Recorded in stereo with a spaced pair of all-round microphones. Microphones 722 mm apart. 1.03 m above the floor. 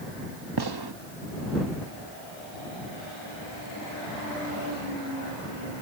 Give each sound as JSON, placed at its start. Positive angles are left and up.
{"t": 0.6, "sound": "a gunshot", "side_deg": -35}